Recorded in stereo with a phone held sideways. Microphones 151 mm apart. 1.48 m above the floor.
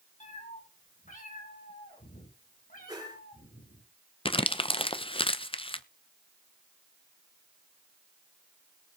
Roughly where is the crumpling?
Left.